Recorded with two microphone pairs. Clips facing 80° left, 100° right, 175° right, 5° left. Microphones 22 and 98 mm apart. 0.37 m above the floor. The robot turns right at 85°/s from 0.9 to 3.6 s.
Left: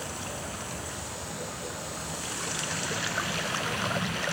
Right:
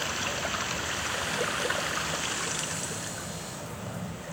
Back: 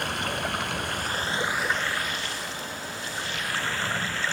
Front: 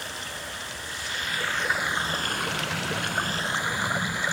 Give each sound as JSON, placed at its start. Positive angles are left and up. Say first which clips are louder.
{"t": 0.0, "sound": "running water", "louder": "right 6 dB, back 8 dB", "azimuth_deg": -155, "distance_m": 0.9}